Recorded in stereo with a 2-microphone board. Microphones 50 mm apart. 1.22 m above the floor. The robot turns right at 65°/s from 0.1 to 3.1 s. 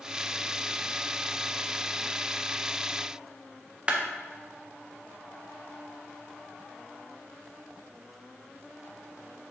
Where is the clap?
25° right (ahead or behind), 0.9 m.